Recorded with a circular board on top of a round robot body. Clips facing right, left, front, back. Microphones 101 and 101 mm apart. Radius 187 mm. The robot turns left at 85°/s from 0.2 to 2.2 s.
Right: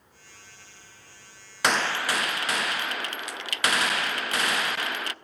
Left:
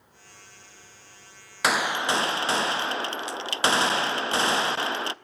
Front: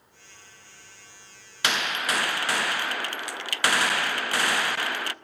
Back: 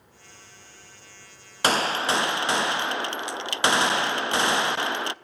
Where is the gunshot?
175° left, 0.8 m; by 5.1 s 130° left, 0.8 m.